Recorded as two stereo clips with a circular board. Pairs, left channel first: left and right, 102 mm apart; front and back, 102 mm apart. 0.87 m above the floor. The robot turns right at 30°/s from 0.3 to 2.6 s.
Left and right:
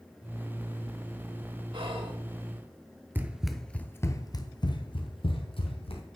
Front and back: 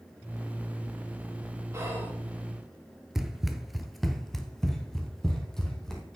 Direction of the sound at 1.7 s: 120° right.